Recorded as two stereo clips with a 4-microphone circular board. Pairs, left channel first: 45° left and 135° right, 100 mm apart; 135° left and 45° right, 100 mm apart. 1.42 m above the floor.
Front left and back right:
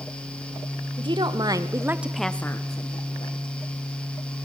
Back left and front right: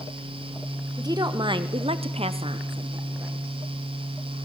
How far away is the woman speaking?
About 1.8 m.